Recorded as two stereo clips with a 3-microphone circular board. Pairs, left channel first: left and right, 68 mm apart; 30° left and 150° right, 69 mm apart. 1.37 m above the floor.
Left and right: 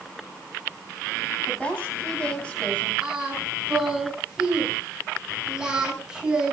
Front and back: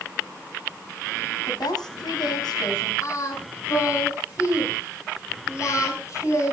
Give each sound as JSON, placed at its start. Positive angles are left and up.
{"t": 1.5, "sound": "a woman speaking", "azimuth_deg": 15, "distance_m": 9.0}
{"t": 3.0, "sound": "singing", "azimuth_deg": -10, "distance_m": 8.0}